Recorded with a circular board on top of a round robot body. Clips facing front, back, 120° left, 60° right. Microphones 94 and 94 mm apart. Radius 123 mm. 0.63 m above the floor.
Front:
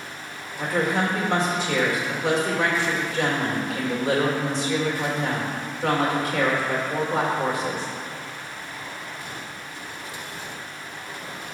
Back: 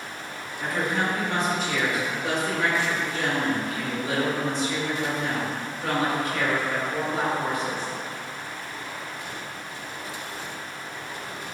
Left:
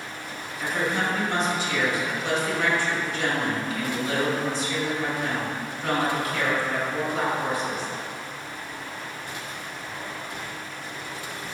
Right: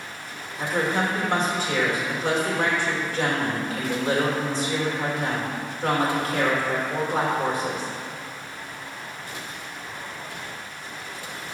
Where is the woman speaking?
15° right, 2 m.